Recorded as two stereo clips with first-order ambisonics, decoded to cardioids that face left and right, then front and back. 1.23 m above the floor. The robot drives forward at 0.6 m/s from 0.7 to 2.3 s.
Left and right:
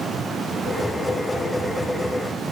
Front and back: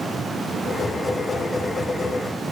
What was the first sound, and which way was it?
Only background noise.